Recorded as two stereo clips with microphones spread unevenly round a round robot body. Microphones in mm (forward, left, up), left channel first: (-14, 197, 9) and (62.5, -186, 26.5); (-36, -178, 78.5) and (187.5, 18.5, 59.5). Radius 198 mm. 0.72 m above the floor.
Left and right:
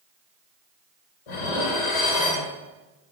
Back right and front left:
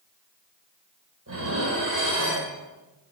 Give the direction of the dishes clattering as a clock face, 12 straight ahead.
9 o'clock.